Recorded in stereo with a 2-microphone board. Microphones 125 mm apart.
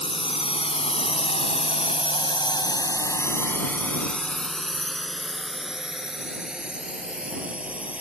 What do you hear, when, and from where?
0.0 s a drone: 45° left (ahead or behind); by 8.0 s 10° right (ahead or behind)